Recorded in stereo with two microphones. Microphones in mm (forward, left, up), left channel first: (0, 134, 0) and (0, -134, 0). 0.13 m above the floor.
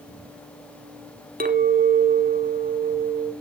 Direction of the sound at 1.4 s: 35° right (ahead or behind).